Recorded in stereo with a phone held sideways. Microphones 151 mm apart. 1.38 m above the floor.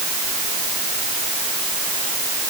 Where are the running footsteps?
I don't hear running footsteps.